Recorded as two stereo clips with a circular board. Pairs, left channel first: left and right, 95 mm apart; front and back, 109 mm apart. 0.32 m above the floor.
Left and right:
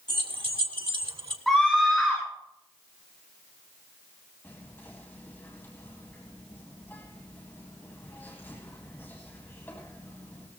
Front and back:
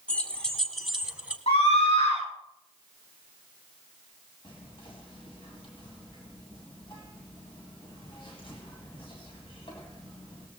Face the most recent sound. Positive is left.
turn(degrees=25)